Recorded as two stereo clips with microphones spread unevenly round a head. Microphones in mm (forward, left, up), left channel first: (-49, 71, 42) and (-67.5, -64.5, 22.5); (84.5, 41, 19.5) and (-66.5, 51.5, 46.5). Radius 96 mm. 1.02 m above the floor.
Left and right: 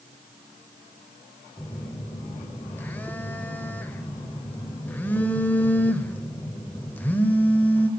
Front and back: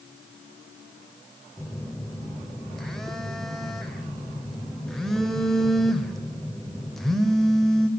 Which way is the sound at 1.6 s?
110° left.